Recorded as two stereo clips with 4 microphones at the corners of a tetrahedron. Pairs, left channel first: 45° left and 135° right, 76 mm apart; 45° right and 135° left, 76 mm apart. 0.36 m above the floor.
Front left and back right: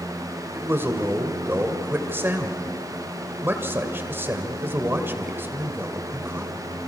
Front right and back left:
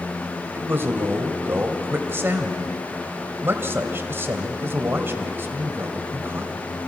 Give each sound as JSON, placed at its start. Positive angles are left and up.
{"t": 0.5, "sound": "a man speaking", "azimuth_deg": 180, "distance_m": 2.0}